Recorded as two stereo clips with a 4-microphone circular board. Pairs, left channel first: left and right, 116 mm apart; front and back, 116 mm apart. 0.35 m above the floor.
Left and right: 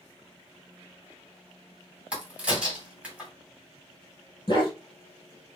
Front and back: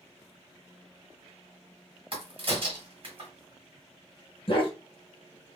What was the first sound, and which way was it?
A crack, 165° right.